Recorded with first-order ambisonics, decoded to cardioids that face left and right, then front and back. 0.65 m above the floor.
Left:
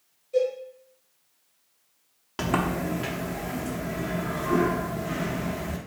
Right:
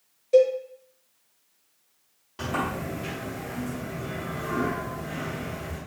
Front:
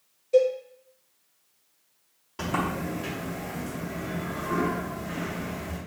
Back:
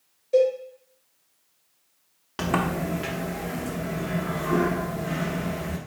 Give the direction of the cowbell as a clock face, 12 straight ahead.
3 o'clock.